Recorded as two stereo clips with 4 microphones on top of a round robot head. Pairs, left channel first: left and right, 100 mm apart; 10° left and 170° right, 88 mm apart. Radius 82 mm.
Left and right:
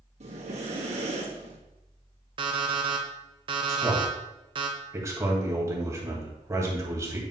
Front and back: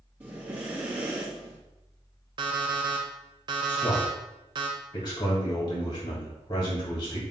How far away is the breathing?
About 2 m.